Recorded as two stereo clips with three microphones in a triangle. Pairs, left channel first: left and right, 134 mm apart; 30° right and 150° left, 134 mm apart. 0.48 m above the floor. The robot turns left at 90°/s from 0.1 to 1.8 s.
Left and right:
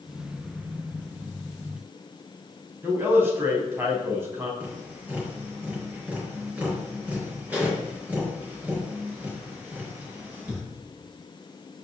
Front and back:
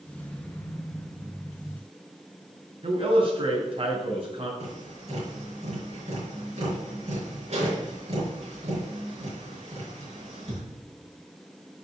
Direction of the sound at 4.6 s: 170° right.